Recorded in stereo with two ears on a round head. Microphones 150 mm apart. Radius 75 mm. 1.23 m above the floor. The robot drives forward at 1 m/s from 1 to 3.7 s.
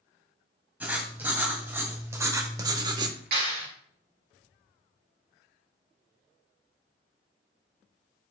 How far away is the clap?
About 3.5 m.